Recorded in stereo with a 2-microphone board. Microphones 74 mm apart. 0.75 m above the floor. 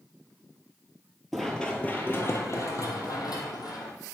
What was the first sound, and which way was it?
Running footsteps, centre (ahead or behind).